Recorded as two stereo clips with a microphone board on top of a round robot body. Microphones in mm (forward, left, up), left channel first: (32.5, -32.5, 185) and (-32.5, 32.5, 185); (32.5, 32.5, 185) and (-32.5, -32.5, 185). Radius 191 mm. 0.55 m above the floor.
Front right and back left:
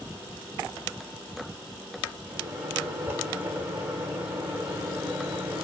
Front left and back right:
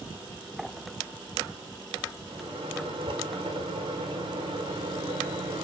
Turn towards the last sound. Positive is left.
turn(degrees=-160)